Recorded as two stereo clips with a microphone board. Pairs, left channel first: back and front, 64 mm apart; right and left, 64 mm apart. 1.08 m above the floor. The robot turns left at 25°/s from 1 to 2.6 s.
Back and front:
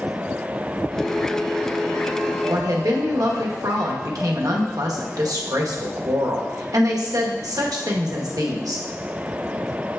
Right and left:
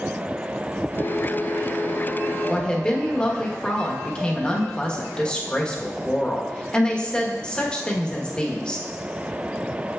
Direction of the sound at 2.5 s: 15° right.